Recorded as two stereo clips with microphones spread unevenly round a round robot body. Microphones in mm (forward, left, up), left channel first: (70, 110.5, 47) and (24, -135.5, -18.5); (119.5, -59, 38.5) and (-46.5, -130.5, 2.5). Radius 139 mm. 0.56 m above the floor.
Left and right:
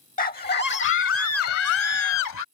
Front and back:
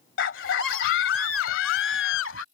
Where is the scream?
20° left; by 2.4 s 65° left.